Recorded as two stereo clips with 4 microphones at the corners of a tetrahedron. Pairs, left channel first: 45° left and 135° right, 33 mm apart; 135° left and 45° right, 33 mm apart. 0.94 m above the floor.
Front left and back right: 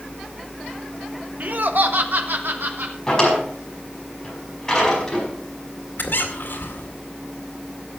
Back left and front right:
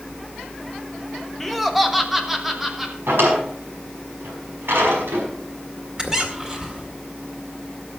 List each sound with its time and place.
1.4 s laughter: 140° right, 1.1 m; by 3.0 s 125° right, 3 m
3.1 s a drawer: 30° right, 5 m
6.0 s a squeak: 25° left, 2 m